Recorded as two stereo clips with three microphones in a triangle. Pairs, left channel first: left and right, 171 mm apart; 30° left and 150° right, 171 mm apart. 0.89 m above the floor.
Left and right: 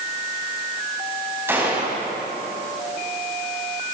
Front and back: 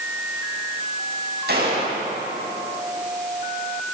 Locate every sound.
1.5 s a gunshot: 165° right, 7.5 m